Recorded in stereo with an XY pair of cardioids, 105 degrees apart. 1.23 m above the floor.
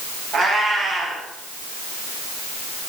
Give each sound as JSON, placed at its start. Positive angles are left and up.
{"t": 0.3, "sound": "a cat meowing", "azimuth_deg": -65, "distance_m": 3.5}